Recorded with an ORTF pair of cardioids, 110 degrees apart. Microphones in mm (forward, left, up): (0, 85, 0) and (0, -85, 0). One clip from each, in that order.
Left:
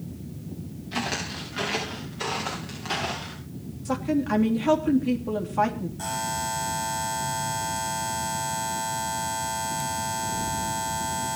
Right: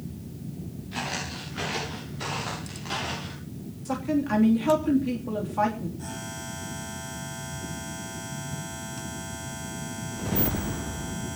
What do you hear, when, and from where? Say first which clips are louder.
0.9 s footsteps: left 3 dB; 35° left, 9.5 m; by 3.4 s 25° left, 10.5 m
3.9 s a woman speaking: left 1 dB; 10° left, 3 m
6.0 s a buzzer: left 9 dB; 70° left, 4.5 m